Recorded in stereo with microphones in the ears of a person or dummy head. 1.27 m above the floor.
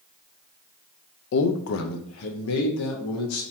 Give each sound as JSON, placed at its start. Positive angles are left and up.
{"t": 1.3, "sound": "a man speaking", "side_deg": 65, "distance_m": 0.5}